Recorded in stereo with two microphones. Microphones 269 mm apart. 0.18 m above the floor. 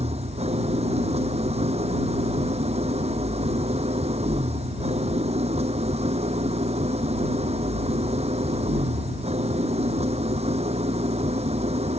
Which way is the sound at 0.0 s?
25° right (ahead or behind).